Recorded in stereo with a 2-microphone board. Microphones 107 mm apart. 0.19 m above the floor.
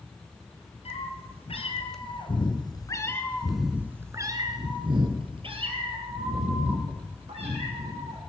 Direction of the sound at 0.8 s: 70° left (ahead or behind).